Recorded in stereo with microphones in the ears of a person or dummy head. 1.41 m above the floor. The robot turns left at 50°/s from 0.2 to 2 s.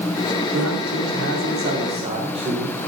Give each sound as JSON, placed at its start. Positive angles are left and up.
{"t": 0.5, "sound": "a man speaking", "azimuth_deg": -75, "distance_m": 3.5}